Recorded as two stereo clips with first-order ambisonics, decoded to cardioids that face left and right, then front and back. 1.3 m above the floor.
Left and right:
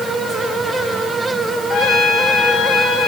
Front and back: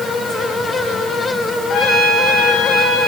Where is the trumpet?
45° left, 7 m.